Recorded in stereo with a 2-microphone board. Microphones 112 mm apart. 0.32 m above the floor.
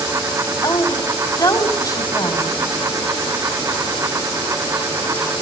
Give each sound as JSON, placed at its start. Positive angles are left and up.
{"t": 0.6, "sound": "a woman speaking", "side_deg": 35, "distance_m": 2.0}